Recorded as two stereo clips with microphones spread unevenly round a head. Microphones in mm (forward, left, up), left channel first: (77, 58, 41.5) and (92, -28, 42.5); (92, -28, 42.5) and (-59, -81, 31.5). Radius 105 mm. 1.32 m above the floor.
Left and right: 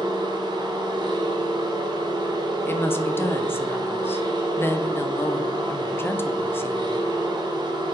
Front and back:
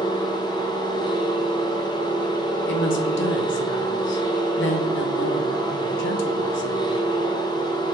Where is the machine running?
45° right, 0.9 m.